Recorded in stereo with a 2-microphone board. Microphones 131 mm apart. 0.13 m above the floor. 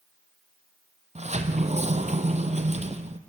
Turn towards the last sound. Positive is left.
turn(degrees=-60)  # may be behind; listen again after turning